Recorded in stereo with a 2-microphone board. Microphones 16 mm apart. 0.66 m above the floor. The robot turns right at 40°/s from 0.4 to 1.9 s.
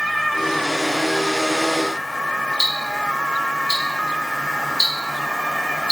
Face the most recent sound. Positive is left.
turn(degrees=-40)  # may be behind; listen again after turning